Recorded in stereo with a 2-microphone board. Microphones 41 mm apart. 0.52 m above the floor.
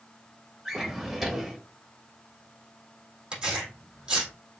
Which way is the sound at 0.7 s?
10° right (ahead or behind).